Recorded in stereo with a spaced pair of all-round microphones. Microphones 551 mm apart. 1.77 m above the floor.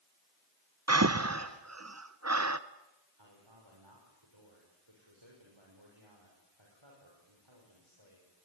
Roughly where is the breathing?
Right.